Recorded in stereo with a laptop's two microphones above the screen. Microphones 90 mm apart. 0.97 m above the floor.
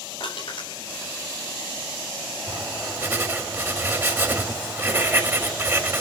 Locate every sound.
0.2 s crushing: 65° left (ahead or behind), 5 m
2.5 s writing: 25° right (ahead or behind), 2 m